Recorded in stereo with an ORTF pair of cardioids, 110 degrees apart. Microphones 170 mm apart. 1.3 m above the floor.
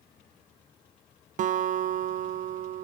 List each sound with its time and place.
1.4 s a guitar: 50° right, 0.6 m